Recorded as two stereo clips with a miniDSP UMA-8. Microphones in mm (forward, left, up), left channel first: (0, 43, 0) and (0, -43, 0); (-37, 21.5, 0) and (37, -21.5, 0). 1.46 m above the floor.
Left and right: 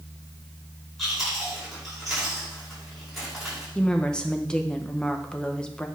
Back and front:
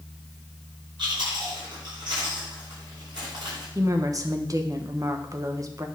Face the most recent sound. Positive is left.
turn(degrees=15)